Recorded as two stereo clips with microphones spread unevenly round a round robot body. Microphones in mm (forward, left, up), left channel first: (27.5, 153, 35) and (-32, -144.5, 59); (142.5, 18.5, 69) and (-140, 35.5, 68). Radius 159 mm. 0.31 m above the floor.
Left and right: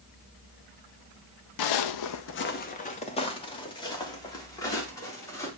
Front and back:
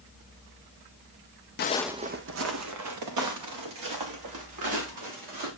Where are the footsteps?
50° left, 0.6 m; by 5.5 s 160° left, 5.5 m.